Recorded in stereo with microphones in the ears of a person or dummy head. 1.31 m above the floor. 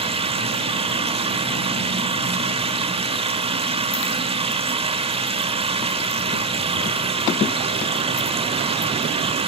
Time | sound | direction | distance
0.0 | a machine running | 25° right (ahead or behind) | 0.8 m